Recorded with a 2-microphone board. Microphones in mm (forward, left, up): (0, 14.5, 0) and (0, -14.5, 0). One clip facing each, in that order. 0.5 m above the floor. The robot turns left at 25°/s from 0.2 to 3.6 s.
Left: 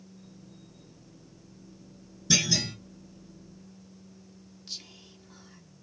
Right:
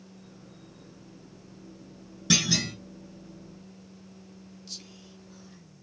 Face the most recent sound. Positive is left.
turn(degrees=20)  # may be behind; listen again after turning